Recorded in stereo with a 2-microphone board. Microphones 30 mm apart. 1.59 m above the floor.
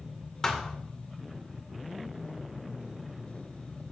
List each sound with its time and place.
0.4 s a thud: 20° left (ahead or behind), 2 m